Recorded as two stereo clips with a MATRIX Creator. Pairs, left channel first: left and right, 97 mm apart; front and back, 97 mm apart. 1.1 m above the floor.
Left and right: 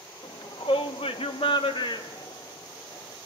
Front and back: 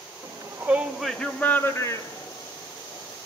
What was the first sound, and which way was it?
A shout, 125° left.